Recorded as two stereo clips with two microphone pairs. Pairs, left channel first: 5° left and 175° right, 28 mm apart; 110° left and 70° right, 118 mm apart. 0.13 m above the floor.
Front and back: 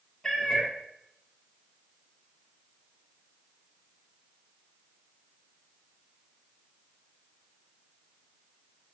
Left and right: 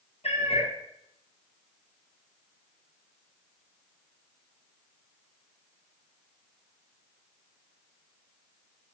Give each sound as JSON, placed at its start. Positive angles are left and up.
{"t": 0.2, "sound": "a cat meowing", "azimuth_deg": 90, "distance_m": 2.0}